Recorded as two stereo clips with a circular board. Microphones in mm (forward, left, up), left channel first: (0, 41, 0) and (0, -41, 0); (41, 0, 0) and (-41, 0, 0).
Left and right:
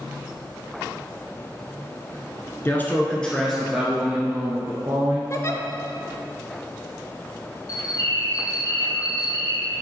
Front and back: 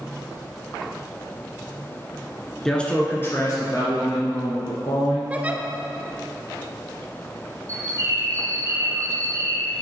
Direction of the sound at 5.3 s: 115° left.